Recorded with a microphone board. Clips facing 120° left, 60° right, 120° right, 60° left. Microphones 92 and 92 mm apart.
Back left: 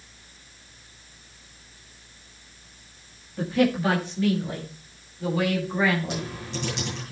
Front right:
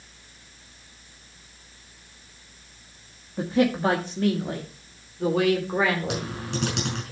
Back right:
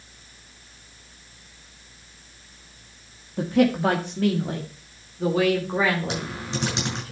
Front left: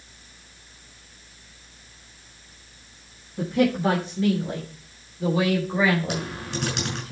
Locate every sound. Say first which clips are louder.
3.4 s a man speaking: even, back right 2 dB; 125° right, 1.6 m; by 7.1 s 70° right, 4.5 m
6.1 s typing on a keyboard: front right 2 dB, even; 50° right, 6.5 m